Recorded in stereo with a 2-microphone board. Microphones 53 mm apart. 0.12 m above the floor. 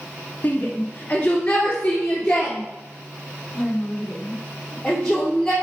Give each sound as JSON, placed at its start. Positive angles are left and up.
{"t": 0.4, "sound": "a shout", "side_deg": 30, "distance_m": 1.3}